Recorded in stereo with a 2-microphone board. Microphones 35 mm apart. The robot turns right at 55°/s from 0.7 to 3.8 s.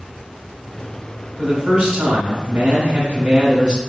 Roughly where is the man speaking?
Behind right.